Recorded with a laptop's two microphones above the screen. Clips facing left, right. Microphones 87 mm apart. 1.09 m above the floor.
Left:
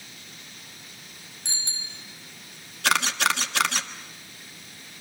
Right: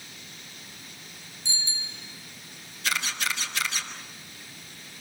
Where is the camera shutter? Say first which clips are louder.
Left 7 dB; 75° left (ahead or behind), 1.5 m.